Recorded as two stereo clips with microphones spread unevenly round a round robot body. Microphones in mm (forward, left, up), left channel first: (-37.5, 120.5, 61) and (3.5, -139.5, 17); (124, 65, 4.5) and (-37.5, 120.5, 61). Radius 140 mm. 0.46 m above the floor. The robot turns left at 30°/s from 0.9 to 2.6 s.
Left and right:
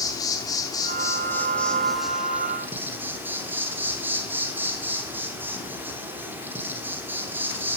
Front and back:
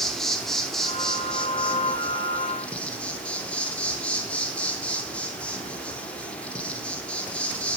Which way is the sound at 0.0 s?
20° left.